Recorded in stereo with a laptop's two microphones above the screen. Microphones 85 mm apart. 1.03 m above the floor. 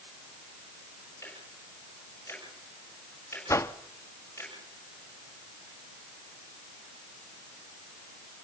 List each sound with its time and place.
1.2 s ticking: 30° left (ahead or behind), 7 m
3.5 s a whoosh: 35° left (ahead or behind), 1.0 m